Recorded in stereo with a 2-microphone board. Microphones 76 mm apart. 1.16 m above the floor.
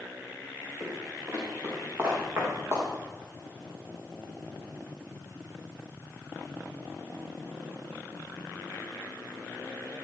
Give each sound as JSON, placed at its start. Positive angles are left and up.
{"t": 0.8, "sound": "footsteps", "side_deg": -20, "distance_m": 7.0}